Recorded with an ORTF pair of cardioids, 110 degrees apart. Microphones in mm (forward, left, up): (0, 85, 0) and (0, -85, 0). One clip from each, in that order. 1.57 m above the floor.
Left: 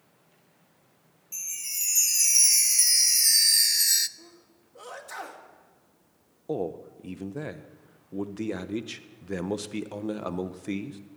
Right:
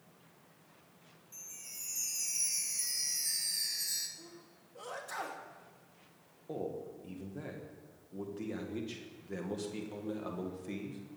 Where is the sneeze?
20° left, 2.5 m.